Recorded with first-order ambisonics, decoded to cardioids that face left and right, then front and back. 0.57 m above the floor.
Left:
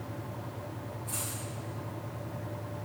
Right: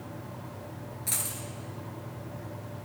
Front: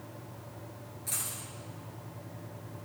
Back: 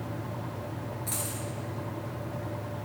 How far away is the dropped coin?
About 1.0 m.